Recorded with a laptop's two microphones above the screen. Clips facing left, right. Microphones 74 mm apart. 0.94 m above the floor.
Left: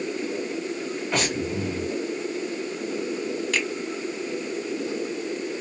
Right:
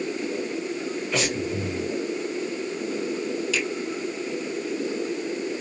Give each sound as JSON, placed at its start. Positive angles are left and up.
{"t": 1.1, "sound": "breathing", "side_deg": 45, "distance_m": 1.8}
{"t": 3.5, "sound": "a finger snap", "side_deg": 55, "distance_m": 1.7}